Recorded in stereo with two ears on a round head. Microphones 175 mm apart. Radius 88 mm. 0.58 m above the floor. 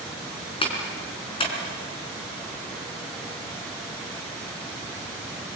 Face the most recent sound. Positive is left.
turn(degrees=30)  # may be behind; listen again after turning